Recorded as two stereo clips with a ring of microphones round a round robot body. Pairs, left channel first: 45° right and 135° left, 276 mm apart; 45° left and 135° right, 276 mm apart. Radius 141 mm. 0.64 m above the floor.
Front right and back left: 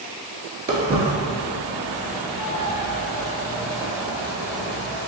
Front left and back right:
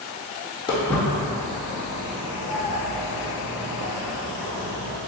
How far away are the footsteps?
About 0.6 m.